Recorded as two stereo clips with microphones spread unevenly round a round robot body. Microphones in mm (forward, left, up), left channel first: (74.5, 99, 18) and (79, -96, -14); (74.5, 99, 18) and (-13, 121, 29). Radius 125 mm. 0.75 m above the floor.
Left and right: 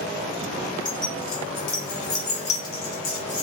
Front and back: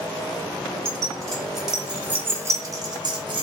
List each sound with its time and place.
0.8 s keys jangling: 65° left, 1.6 m; by 3.4 s 140° left, 1.0 m